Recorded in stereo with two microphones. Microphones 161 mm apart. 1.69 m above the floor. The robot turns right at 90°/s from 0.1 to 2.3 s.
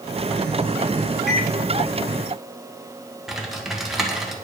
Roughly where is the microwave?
Centre.